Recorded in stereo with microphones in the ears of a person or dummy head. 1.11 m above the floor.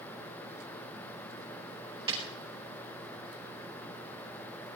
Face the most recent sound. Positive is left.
turn(degrees=-25)  # may be behind; listen again after turning